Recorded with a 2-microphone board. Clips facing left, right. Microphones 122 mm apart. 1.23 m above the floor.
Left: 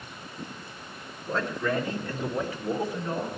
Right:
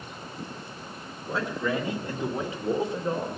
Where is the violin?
I don't hear a violin.